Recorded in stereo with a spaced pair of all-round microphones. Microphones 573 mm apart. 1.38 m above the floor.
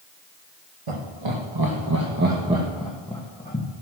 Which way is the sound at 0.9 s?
60° right (ahead or behind).